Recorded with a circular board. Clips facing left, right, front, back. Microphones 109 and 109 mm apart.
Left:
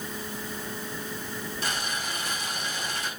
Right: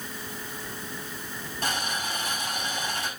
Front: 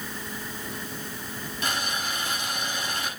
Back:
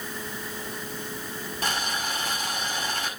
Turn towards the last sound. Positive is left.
turn(degrees=-130)